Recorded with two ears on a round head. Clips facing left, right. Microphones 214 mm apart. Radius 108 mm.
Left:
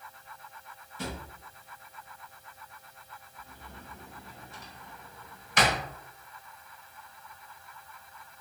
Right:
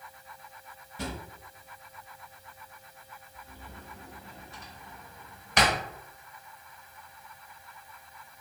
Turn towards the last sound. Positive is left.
turn(degrees=-55)  # may be behind; listen again after turning